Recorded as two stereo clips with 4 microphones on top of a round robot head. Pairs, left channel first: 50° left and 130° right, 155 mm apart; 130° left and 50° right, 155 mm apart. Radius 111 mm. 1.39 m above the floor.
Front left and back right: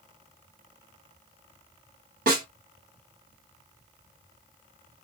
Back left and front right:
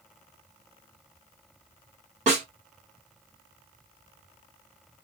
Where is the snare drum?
105° right, 1.6 m.